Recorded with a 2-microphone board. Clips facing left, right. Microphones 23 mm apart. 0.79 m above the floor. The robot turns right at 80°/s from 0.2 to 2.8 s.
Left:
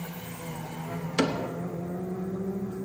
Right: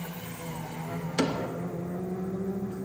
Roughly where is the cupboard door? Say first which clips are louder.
Left 2 dB; centre.